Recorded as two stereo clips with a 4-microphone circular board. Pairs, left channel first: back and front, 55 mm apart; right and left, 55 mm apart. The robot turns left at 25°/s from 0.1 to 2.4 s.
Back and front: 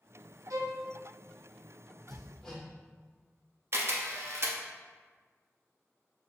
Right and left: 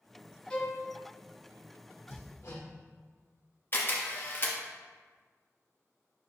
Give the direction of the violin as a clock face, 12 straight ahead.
12 o'clock.